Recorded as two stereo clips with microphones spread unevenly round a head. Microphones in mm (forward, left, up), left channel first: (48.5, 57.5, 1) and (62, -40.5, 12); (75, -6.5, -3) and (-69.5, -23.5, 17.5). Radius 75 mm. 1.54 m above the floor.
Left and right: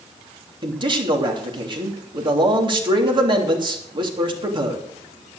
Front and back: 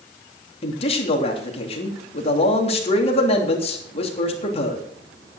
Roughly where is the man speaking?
Ahead right.